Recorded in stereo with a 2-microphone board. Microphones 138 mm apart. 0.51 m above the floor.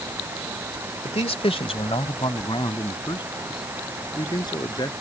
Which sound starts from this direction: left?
A man speaking, at 1.1 s.